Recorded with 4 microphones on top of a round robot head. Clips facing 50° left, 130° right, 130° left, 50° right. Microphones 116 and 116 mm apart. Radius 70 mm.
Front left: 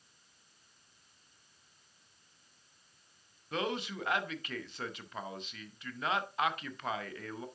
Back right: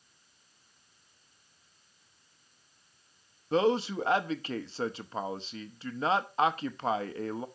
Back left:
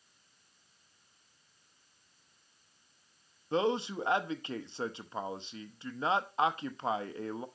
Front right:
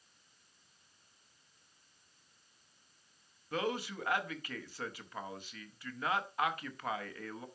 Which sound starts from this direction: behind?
A man speaking, at 3.5 s.